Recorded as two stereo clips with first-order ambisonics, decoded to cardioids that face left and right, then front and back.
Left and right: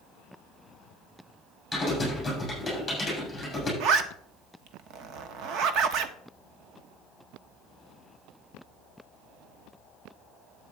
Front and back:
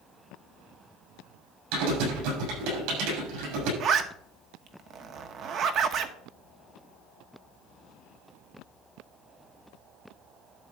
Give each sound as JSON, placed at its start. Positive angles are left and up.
{"t": 1.7, "sound": "typing on a keyboard", "azimuth_deg": 175, "distance_m": 7.0}
{"t": 3.8, "sound": "a zipper", "azimuth_deg": -130, "distance_m": 0.9}